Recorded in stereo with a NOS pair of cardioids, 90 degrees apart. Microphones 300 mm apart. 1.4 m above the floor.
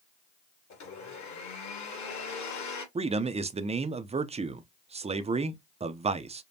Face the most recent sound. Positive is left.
turn(degrees=-20)